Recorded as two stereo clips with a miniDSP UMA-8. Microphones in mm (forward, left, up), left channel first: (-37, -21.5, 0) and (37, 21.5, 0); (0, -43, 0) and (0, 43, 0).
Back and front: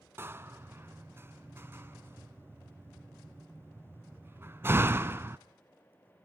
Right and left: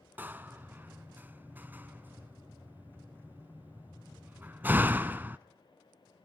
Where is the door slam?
45° left, 0.8 m.